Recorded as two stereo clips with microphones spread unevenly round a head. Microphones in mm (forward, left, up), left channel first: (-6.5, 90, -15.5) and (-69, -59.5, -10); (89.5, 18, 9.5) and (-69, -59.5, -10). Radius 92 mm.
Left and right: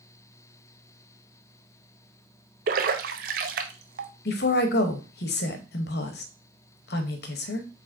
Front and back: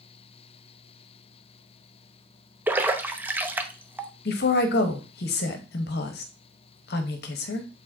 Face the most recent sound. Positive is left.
turn(degrees=50)